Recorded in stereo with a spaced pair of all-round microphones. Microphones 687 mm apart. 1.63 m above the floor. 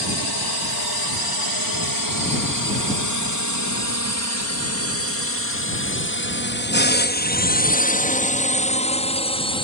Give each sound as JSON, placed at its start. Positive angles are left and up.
{"t": 0.0, "sound": "a drone", "side_deg": 35}